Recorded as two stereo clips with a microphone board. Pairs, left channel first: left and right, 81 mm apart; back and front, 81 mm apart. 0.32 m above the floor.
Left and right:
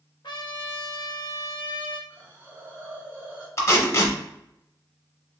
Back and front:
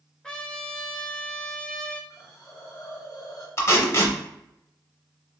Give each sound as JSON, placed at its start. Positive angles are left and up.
{"t": 0.2, "sound": "a trumpet", "azimuth_deg": 100, "distance_m": 0.6}
{"t": 2.1, "sound": "a hiss", "azimuth_deg": -145, "distance_m": 0.9}
{"t": 3.6, "sound": "tape being pulled", "azimuth_deg": 135, "distance_m": 0.6}